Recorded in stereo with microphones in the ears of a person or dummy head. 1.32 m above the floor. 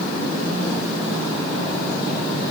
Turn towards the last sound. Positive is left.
No sound to turn to.